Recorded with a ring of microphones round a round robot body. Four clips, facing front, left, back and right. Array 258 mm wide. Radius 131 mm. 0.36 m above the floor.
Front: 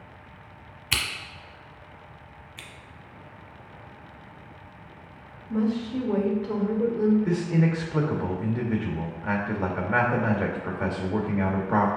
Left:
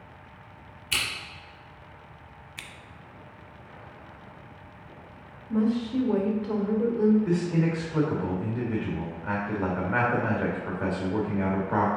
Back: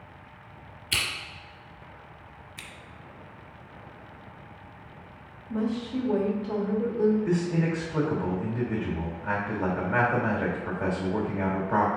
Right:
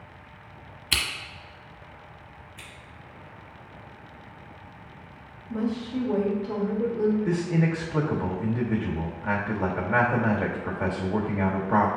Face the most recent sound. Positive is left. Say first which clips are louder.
# even, front 2 dB
turn(degrees=-40)